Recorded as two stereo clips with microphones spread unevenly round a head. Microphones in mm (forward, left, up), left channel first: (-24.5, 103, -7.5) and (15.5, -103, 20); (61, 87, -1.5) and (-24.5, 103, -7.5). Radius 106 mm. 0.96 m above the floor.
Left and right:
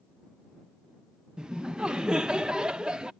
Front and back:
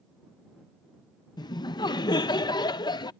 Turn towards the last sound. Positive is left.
turn(degrees=15)